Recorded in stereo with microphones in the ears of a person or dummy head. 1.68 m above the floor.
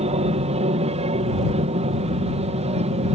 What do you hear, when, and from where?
0.0 s an aircraft: 30° right (ahead or behind)